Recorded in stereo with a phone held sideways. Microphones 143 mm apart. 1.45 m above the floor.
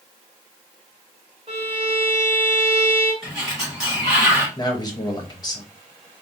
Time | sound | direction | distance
1.5 | a violin | 40° right (ahead or behind) | 1.4 m
3.2 | a sliding door | centre (ahead or behind) | 2 m
4.6 | a man speaking | 30° left (ahead or behind) | 0.8 m